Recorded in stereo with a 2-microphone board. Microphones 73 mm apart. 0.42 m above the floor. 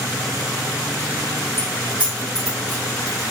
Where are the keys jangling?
35° right (ahead or behind), 1.1 m; by 3.2 s 10° left (ahead or behind), 1.9 m.